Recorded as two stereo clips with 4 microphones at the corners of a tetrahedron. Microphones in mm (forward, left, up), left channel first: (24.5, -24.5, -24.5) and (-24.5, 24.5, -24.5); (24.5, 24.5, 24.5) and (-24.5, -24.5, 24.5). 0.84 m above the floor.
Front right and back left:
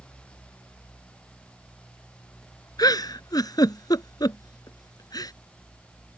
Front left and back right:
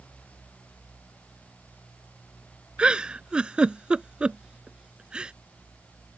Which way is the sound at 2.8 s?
60° right.